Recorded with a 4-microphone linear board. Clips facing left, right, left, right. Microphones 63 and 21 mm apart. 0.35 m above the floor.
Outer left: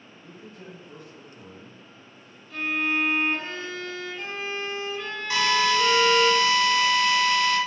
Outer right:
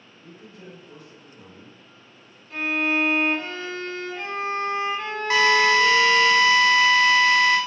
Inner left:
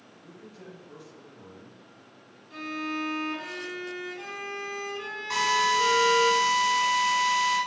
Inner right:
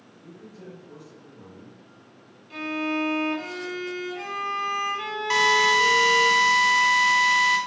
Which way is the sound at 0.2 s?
Centre (ahead or behind).